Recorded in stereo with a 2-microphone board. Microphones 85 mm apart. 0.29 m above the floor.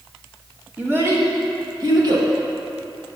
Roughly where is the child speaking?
Right.